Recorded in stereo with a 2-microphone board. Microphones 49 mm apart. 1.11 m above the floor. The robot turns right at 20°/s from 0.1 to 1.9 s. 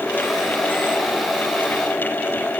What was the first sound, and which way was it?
Only background noise.